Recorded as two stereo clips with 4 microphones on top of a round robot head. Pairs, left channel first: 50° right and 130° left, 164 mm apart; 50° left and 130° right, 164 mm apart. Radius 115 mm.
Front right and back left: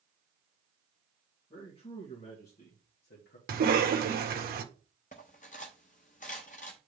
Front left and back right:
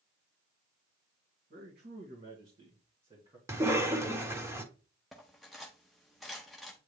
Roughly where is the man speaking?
Behind right.